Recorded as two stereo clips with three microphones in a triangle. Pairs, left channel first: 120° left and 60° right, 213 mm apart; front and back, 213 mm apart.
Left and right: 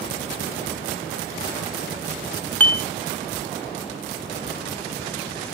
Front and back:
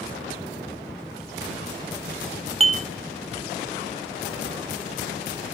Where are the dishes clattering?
165° right, 0.7 m.